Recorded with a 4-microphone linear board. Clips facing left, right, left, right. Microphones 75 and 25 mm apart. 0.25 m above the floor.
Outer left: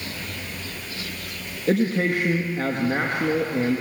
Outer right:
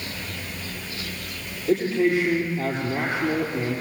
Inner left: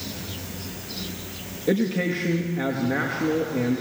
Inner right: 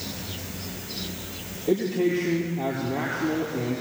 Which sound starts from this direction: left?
A man speaking, at 1.7 s.